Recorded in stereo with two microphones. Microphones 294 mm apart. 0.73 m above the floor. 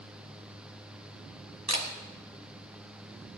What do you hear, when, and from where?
1.7 s a camera shutter: 65° right (ahead or behind), 2 m